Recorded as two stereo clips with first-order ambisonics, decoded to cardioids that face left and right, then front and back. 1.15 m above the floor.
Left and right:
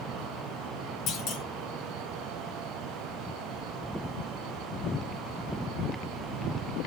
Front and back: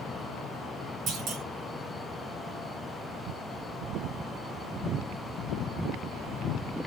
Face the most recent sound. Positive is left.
turn(degrees=130)